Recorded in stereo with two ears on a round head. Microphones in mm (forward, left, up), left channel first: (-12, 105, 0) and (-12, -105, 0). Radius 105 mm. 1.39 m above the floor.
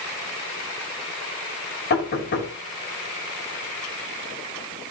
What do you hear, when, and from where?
1.9 s knocking: 50° left (ahead or behind), 6.5 m